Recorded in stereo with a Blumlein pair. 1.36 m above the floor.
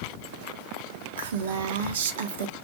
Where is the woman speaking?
60° right, 0.8 m.